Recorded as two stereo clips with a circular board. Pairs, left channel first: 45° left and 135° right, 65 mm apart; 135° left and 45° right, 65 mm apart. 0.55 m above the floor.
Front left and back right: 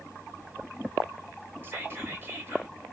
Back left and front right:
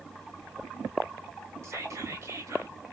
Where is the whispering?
80° right, 1.5 m.